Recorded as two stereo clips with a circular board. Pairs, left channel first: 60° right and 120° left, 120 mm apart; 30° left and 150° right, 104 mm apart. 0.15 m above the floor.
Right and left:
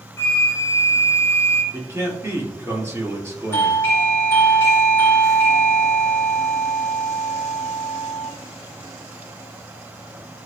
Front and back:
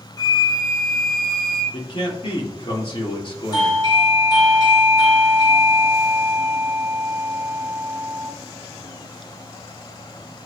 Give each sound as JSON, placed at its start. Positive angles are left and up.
{"t": 0.2, "sound": "a flute", "azimuth_deg": 5, "distance_m": 1.2}
{"t": 1.7, "sound": "a man speaking", "azimuth_deg": 55, "distance_m": 3.0}
{"t": 3.5, "sound": "a doorbell", "azimuth_deg": 5, "distance_m": 2.5}